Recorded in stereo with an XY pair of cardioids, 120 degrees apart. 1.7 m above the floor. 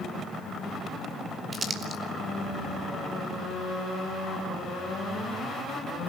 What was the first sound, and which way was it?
Crumpling, 30° right.